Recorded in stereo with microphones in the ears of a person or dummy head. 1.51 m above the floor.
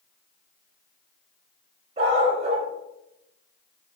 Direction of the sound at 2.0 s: 40° right (ahead or behind).